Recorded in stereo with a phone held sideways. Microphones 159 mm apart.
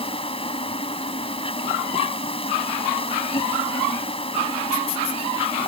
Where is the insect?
35° left (ahead or behind).